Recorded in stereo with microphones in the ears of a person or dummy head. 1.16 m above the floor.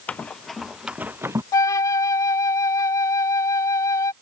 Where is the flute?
20° left (ahead or behind).